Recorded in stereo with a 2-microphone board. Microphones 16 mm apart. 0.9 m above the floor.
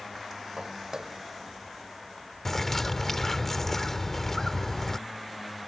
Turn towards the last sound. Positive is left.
turn(degrees=25)  # may be behind; listen again after turning